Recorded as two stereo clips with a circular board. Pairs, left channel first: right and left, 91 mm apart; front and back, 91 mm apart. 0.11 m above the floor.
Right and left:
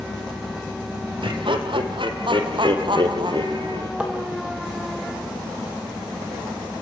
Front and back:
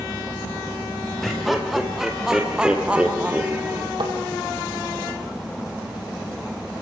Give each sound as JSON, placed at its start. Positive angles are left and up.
{"t": 1.2, "sound": "laughter", "azimuth_deg": 90, "distance_m": 3.5}
{"t": 4.0, "sound": "tapping", "azimuth_deg": 165, "distance_m": 4.5}